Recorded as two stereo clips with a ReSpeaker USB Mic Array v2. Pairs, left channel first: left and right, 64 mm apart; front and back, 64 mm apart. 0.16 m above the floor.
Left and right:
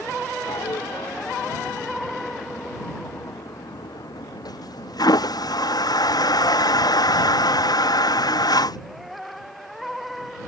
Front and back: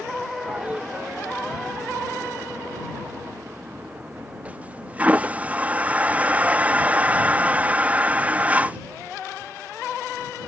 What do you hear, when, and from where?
0.5 s a toilet flushing: 110° left